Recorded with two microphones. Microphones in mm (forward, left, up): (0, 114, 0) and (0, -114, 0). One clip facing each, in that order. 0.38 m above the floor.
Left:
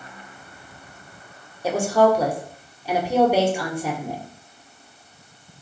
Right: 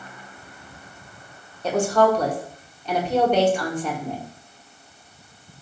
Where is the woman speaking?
10° left (ahead or behind), 0.9 m.